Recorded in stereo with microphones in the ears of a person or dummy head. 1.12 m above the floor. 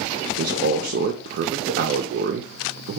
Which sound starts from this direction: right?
A man speaking, at 0.4 s.